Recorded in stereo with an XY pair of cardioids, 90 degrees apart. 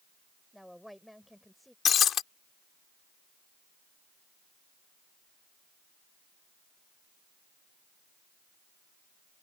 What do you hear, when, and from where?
0.5 s a woman speaking: straight ahead
1.9 s breaking glass: 70° left